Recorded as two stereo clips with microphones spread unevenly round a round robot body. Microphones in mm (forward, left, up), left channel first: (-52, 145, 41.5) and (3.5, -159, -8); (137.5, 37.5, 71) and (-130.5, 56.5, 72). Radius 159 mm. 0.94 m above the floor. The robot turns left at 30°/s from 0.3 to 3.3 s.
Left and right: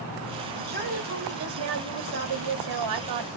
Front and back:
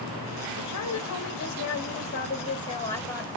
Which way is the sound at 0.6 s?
15° right.